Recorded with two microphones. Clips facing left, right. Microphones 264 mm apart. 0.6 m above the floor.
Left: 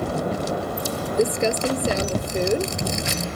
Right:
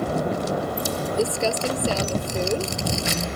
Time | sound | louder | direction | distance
1.2 | crumpling | left 4 dB | 20° left (ahead or behind) | ?